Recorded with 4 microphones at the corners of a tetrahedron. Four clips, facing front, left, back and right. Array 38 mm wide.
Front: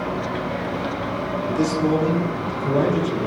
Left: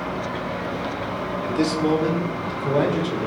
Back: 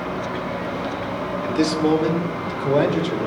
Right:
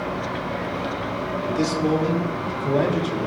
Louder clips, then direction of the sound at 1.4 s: Left 1 dB, back 2 dB; 165° left.